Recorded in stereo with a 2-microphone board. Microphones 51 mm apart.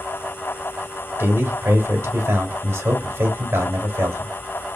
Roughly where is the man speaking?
Right.